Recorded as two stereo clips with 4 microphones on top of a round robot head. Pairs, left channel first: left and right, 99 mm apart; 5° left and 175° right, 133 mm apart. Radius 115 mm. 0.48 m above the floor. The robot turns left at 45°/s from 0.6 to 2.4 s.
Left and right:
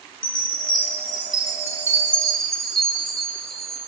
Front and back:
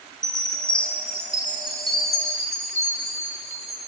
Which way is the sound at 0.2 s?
90° left.